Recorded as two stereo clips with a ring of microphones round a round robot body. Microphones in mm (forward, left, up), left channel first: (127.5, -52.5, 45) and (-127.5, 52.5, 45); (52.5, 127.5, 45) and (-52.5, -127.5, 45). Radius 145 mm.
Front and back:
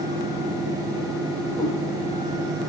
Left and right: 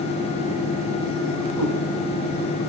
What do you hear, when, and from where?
1.6 s a cat meowing: 100° right, 5.5 m